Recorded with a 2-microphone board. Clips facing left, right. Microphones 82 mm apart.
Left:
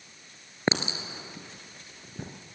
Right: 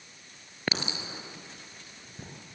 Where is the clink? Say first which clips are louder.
Left 5 dB; 25° left (ahead or behind), 2.5 m.